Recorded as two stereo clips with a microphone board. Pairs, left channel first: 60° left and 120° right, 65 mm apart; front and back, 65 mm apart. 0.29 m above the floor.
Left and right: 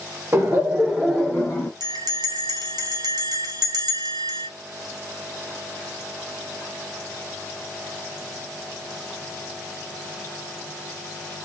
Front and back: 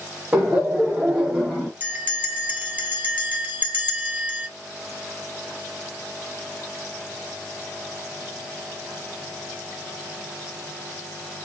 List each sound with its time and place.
0.3 s laughter: 130° right, 1.2 m; by 1.7 s 90° left, 1.2 m
1.8 s a bell: 115° right, 1.3 m